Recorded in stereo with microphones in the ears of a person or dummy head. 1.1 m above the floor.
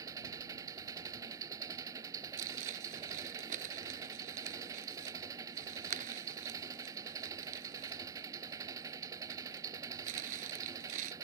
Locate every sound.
0.0 s an engine running: 15° right (ahead or behind)
2.4 s crumpling: 40° right (ahead or behind)